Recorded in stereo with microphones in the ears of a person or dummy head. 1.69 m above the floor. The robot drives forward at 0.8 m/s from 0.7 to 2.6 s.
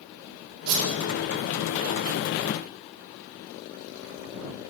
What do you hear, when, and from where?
0.7 s a whoosh: 70° right (ahead or behind), 1.5 m; by 0.9 s 75° right (ahead or behind), 1.5 m